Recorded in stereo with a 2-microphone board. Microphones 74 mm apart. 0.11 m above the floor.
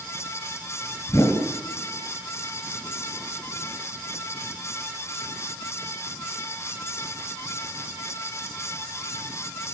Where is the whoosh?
40° left (ahead or behind), 2 m.